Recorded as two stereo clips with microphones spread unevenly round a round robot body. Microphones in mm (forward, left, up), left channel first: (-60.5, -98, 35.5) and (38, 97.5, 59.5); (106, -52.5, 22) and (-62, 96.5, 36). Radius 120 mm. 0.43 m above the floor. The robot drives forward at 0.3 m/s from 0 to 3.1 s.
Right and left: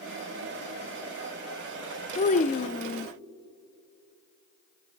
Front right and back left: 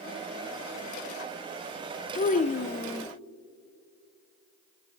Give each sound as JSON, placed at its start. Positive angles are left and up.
{"t": 2.1, "sound": "a child speaking", "azimuth_deg": -80, "distance_m": 0.7}